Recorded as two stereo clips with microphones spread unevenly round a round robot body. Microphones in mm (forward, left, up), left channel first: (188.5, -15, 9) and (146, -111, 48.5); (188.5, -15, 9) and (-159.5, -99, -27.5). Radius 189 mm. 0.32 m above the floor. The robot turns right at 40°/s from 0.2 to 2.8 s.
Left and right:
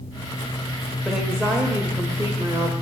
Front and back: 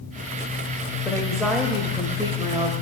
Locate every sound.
1.1 s a woman speaking: 105° left, 1.0 m; by 2.7 s 170° left, 1.0 m